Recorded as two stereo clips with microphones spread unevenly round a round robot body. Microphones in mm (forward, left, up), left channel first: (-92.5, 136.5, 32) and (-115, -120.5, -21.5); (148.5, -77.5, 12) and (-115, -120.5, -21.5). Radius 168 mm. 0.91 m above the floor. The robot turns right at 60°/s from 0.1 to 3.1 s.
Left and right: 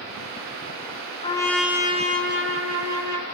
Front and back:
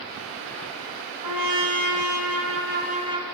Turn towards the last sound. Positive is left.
turn(degrees=-95)